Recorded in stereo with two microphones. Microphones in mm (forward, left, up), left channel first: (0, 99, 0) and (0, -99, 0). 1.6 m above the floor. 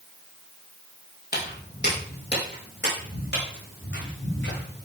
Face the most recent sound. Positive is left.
turn(degrees=70)  # may be behind; listen again after turning